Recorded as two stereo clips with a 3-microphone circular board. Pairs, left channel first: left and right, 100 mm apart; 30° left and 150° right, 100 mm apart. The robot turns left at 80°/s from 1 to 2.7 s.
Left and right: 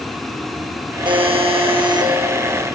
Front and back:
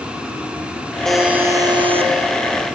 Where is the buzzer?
55° right, 3 m; by 2.1 s 140° right, 3 m.